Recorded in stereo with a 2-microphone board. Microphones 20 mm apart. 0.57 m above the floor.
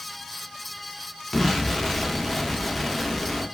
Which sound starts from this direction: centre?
An explosion, at 1.3 s.